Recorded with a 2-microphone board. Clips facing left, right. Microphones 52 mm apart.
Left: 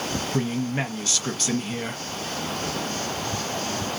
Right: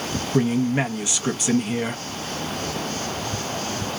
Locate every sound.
0.3 s a man speaking: 15° right (ahead or behind), 0.8 m